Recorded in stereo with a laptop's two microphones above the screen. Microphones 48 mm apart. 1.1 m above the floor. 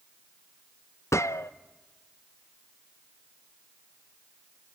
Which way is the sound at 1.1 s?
75° left (ahead or behind).